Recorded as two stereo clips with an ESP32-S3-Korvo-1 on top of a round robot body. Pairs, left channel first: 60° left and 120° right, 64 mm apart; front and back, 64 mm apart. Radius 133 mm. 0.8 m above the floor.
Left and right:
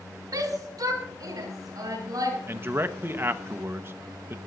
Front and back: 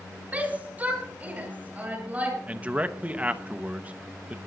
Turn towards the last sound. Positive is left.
turn(degrees=-125)